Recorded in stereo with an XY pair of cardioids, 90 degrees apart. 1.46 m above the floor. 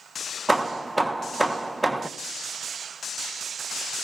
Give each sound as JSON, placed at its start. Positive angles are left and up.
{"t": 0.5, "sound": "hammering", "azimuth_deg": -10, "distance_m": 1.4}